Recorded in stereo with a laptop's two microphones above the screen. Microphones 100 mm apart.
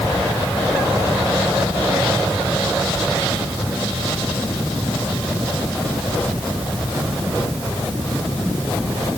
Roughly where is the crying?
I don't hear crying.